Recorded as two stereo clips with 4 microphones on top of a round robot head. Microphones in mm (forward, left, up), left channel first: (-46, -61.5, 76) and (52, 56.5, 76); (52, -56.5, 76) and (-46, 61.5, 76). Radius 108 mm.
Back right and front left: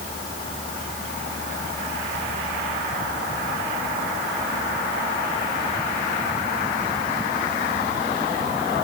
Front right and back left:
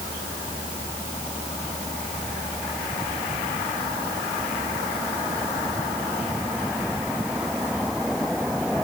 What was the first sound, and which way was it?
Only background noise.